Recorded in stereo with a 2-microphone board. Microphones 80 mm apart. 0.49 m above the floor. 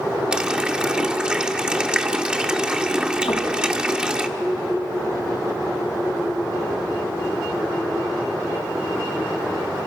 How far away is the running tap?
About 0.8 m.